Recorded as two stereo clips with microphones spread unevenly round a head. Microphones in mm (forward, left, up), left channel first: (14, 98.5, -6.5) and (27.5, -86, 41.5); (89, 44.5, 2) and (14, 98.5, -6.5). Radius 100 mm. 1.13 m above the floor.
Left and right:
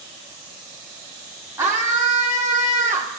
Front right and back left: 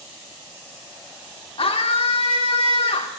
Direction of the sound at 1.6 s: 5° right.